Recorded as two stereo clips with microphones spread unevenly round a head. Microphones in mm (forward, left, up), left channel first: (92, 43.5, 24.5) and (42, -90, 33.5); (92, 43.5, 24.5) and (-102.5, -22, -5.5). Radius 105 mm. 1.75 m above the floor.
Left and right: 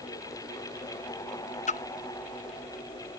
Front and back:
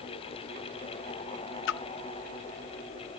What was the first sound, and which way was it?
A splash, 35° left.